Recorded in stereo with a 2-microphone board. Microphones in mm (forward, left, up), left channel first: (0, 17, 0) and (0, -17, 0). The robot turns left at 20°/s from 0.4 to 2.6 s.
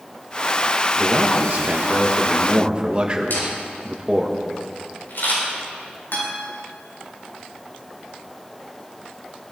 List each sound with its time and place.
1.0 s a man speaking: 115° right, 1.7 m; by 4.3 s 145° right, 1.7 m
3.3 s a camera shutter: 80° left, 6.5 m
6.1 s a guitar: 80° left, 5 m